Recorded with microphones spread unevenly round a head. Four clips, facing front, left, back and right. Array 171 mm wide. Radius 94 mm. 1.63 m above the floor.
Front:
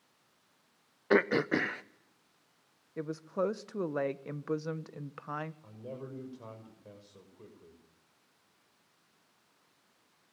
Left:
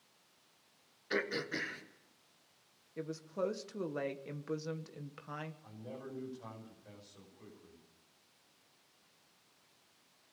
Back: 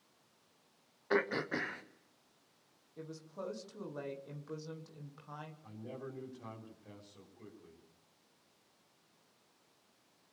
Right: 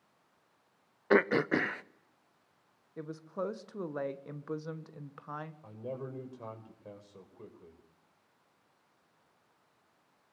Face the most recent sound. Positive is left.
turn(degrees=-70)